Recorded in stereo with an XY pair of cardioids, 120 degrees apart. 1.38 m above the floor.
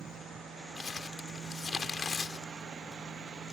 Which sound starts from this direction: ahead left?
Crumpling, at 0.8 s.